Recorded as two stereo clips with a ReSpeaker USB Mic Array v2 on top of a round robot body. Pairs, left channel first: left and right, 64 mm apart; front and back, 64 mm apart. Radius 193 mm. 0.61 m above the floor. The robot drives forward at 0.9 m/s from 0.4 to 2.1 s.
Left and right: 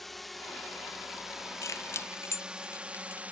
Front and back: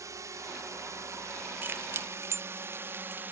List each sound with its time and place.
0.0 s a drone: 175° left; by 3.3 s 145° right
1.6 s keys jangling: 120° left; by 3.2 s 135° left